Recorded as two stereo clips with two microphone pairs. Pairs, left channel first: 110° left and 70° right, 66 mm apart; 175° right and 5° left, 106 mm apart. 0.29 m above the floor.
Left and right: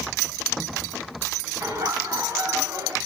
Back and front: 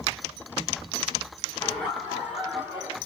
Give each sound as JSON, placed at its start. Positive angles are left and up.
{"t": 1.6, "sound": "laughter", "azimuth_deg": -90, "distance_m": 3.0}